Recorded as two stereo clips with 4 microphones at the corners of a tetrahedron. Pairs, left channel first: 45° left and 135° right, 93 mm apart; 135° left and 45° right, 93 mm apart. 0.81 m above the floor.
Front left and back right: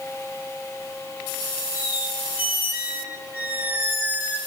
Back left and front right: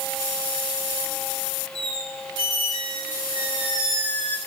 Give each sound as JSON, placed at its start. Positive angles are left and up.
{"t": 1.8, "sound": "a squeak", "azimuth_deg": -65, "distance_m": 1.6}